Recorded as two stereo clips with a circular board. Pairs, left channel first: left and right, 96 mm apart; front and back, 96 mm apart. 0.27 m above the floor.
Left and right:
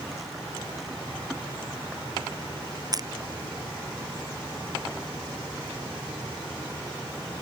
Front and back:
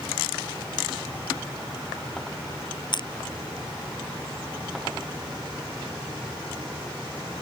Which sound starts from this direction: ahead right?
Crushing, at 2.9 s.